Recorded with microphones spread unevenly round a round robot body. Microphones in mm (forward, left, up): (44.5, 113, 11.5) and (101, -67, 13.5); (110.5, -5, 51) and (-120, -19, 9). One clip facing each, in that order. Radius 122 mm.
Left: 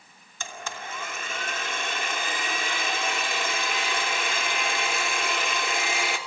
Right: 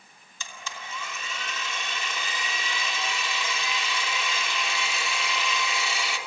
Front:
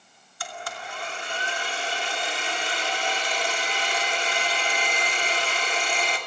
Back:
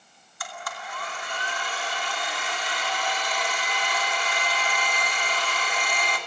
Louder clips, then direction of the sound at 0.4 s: Left 5 dB, front 2 dB; 70° left.